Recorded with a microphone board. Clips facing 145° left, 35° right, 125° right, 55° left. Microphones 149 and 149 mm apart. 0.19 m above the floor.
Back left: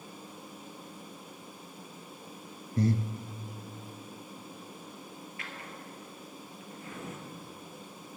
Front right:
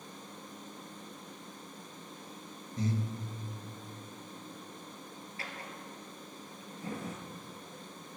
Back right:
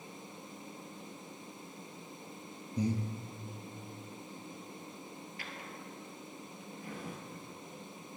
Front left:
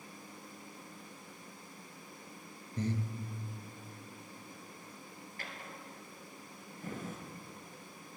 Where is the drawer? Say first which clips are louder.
Front right 3 dB, front left 2 dB; 20° left, 1.3 m.